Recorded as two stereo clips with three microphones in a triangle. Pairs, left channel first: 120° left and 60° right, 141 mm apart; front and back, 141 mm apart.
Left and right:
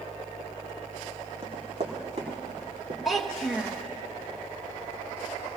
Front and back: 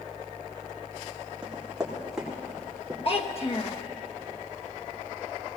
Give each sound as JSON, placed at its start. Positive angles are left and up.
{"t": 1.4, "sound": "running footsteps", "azimuth_deg": -100, "distance_m": 3.5}
{"t": 3.0, "sound": "a child speaking", "azimuth_deg": 30, "distance_m": 1.1}